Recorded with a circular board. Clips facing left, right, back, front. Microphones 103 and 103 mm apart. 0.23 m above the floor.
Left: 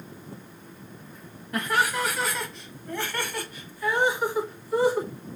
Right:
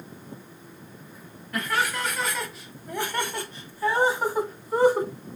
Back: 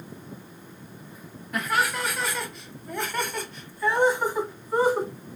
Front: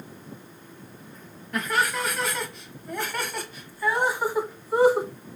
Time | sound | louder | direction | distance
1.5 | laughter | left 2 dB, even | 105° left | 1.3 m